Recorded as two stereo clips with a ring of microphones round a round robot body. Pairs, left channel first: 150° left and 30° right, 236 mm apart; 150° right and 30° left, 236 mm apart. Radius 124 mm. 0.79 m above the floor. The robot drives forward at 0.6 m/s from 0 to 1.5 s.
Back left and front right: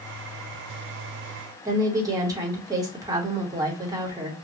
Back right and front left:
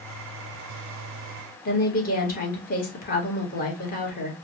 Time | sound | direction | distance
1.6 | a woman speaking | 105° right | 1.0 m